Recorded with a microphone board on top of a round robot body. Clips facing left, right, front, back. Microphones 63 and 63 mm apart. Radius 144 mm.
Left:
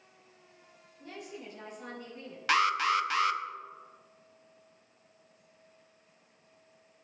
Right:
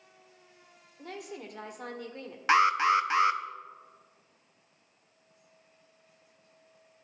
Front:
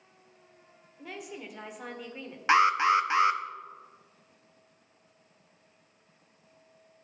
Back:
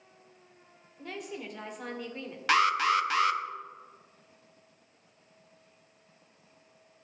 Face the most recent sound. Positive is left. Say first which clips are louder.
# right 4 dB, front 3 dB
turn(degrees=-45)